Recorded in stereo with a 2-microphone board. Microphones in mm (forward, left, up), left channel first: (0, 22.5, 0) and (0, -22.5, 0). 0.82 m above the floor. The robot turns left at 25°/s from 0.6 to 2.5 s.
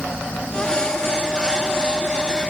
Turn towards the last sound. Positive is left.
No sound to turn to.